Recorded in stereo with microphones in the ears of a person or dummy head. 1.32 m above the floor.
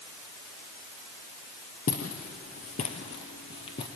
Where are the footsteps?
45° left (ahead or behind), 2 m; by 3.9 s 30° left (ahead or behind), 2.5 m.